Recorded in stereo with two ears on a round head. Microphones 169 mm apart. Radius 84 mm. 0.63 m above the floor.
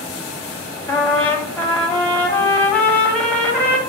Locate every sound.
0.9 s a trumpet: 5° left (ahead or behind), 1.3 m